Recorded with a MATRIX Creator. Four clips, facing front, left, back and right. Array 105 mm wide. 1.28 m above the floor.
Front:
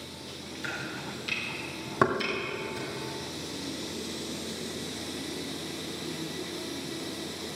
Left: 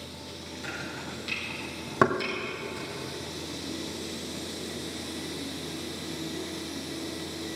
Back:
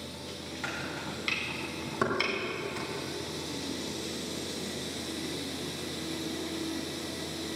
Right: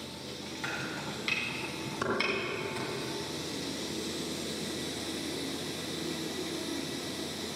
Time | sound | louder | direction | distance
0.6 | chopping | right 1 dB, even | 150° right | 3 m
2.0 | knocking | left 10 dB, front 5 dB | 65° left | 1.9 m